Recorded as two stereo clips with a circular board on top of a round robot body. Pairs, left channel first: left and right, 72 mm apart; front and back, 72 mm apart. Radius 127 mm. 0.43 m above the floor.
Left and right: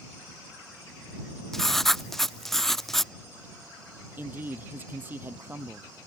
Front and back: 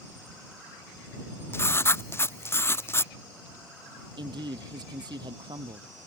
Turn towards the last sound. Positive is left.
turn(degrees=-155)